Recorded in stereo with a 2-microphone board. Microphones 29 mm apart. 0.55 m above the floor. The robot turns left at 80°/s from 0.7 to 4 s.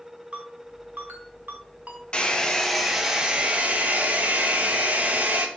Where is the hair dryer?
60° left, 0.5 m; by 5.5 s 90° right, 0.5 m.